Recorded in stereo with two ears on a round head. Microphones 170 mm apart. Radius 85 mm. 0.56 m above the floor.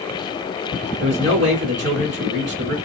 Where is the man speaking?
60° right (ahead or behind), 1.8 m.